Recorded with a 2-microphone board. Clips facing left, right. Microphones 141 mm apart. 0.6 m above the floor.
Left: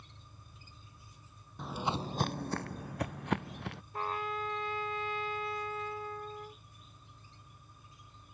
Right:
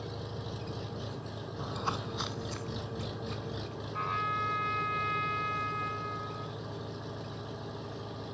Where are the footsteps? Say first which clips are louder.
Left 2 dB; 5° right (ahead or behind); by 3.8 s 70° left (ahead or behind).